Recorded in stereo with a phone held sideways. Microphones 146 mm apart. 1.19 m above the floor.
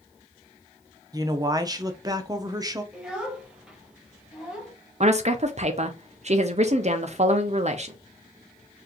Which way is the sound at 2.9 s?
5° right (ahead or behind).